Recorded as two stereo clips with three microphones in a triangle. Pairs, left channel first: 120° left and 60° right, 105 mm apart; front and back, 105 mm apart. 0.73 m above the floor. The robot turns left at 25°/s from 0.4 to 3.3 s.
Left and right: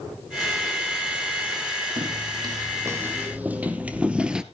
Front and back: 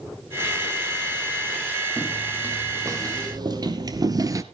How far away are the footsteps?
About 3 m.